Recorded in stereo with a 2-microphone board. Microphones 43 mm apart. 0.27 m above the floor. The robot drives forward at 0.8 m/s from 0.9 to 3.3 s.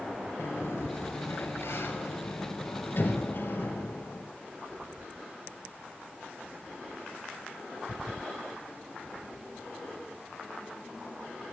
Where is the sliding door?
80° left, 3 m; by 4.2 s 55° left (ahead or behind), 3.5 m.